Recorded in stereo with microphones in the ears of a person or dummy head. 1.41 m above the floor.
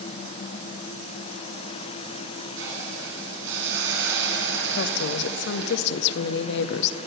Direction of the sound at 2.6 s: 60° right (ahead or behind).